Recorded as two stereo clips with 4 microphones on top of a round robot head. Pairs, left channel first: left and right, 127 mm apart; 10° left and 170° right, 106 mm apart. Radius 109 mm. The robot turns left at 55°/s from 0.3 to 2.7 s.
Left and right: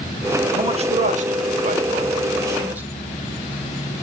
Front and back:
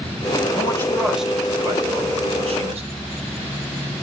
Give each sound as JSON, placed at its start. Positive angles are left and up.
{"t": 0.6, "sound": "a man speaking", "azimuth_deg": -50, "distance_m": 2.0}